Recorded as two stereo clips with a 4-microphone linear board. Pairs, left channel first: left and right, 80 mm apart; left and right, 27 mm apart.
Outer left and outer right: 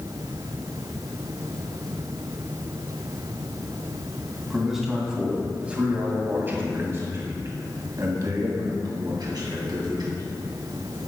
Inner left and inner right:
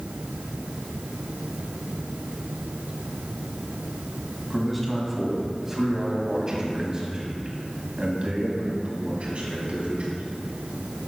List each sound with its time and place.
4.5 s a man speaking: centre (ahead or behind), 2.5 m; by 10.2 s 65° right (ahead or behind), 3 m